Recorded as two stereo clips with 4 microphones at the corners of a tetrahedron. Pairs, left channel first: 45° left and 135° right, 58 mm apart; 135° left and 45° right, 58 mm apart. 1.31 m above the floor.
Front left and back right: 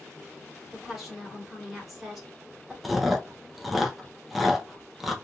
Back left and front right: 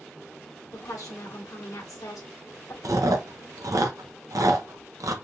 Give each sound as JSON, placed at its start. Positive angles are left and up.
{"t": 0.7, "sound": "a woman speaking", "azimuth_deg": 140, "distance_m": 1.7}
{"t": 2.8, "sound": "chewing", "azimuth_deg": -50, "distance_m": 0.7}